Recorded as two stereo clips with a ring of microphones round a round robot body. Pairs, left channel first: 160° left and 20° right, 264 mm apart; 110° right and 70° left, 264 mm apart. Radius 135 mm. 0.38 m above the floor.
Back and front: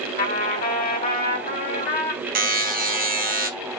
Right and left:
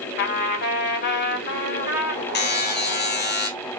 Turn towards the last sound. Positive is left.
turn(degrees=-70)